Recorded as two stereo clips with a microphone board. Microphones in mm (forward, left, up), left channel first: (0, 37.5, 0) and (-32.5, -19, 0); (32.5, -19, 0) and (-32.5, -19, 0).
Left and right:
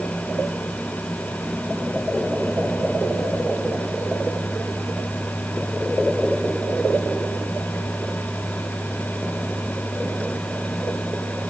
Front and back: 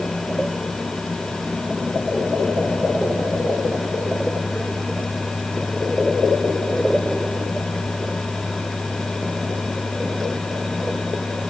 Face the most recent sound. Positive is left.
No sound to turn to.